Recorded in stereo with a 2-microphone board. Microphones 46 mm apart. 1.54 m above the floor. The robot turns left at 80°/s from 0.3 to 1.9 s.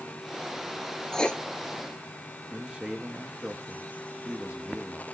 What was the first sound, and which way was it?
Writing, 10° left (ahead or behind).